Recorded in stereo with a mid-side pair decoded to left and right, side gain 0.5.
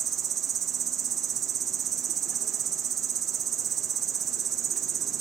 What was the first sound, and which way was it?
An insect, 55° right.